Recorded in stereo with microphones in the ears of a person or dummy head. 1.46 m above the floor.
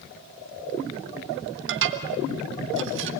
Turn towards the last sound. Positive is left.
turn(degrees=-65)  # may be behind; listen again after turning